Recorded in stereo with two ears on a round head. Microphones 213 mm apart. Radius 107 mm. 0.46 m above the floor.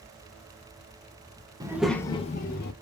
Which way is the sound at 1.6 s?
15° right (ahead or behind).